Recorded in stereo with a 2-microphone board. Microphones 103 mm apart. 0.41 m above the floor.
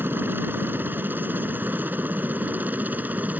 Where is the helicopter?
20° right (ahead or behind); by 3.4 s 15° right (ahead or behind).